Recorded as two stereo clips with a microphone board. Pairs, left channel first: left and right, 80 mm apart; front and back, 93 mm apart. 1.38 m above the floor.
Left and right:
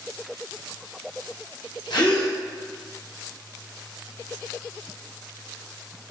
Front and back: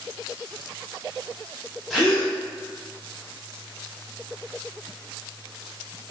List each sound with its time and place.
1.9 s a gasp: 90° left, 0.8 m